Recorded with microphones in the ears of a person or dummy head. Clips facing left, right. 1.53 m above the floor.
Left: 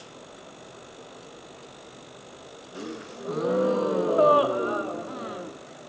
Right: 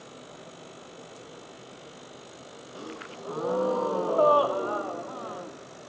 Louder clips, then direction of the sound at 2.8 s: Left 5 dB; 20° left (ahead or behind).